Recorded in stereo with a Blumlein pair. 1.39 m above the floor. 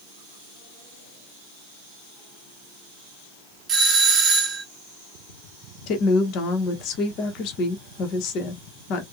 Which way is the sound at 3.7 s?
20° right.